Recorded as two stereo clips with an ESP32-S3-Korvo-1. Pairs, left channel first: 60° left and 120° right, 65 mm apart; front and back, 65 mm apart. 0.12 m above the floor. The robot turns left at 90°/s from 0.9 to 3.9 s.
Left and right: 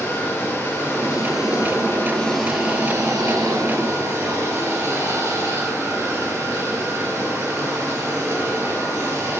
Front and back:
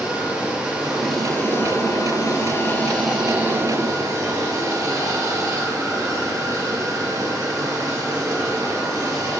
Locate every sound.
0.0 s running water: 110° left, 1.7 m; by 9.4 s 160° right, 1.7 m